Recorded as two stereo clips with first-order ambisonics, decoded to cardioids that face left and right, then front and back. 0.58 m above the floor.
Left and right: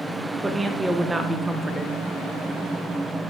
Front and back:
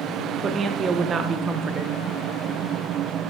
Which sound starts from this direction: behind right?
A woman speaking, at 0.4 s.